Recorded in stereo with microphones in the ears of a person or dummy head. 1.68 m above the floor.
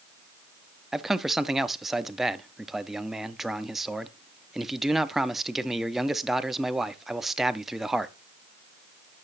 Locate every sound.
0.9 s a man speaking: 5° right (ahead or behind), 0.7 m